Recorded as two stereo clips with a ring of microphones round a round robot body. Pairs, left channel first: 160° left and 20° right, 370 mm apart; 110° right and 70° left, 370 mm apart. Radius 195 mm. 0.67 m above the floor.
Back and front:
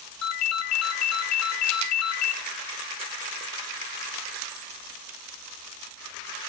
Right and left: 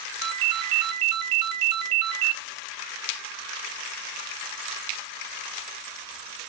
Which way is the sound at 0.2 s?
105° left.